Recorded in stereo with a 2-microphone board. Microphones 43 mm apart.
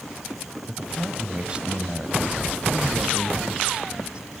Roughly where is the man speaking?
Right.